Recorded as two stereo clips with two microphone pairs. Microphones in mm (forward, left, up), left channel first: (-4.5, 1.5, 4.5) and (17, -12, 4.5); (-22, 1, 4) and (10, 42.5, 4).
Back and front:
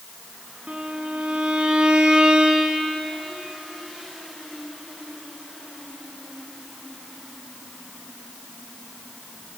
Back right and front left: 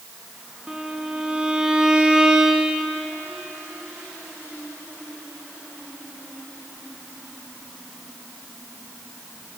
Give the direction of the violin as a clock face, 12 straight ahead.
1 o'clock.